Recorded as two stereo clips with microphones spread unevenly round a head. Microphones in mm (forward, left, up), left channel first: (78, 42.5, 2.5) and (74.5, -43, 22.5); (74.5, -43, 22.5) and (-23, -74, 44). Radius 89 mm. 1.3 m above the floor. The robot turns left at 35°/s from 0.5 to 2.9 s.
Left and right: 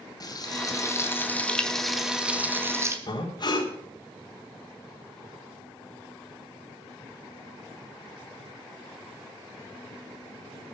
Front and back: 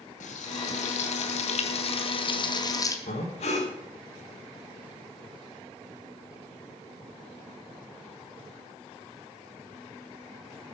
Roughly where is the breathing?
Ahead left.